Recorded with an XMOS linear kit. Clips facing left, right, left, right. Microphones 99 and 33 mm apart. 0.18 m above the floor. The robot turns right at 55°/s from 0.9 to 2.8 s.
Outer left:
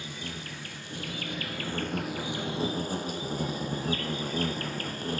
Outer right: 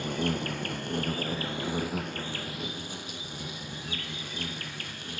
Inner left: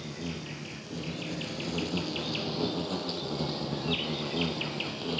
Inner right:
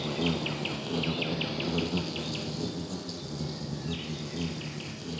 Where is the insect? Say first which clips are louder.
Outer right 10 dB, inner right 8 dB; 60° right, 1.0 m; by 5.2 s 45° left, 1.0 m.